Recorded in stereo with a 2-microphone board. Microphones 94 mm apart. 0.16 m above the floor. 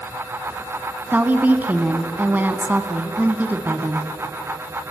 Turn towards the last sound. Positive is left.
turn(degrees=-20)  # may be behind; listen again after turning